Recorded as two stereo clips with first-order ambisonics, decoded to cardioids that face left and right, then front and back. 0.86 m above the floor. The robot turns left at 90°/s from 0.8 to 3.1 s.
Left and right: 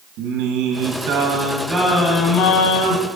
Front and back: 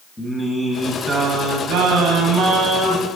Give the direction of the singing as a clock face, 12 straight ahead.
3 o'clock.